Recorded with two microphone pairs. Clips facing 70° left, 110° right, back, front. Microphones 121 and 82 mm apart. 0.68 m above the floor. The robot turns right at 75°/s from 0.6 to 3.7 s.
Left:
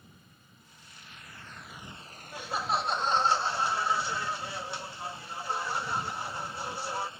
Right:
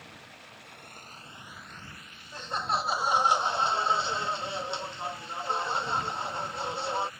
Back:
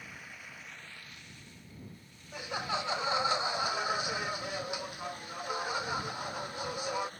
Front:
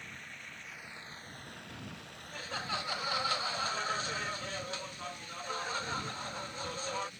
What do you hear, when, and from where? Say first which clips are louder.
0.0 s running water: right 9 dB, even; 95° right; by 7.2 s 135° left
2.3 s laughter: even, back 4 dB; 125° left; by 7.1 s 130° right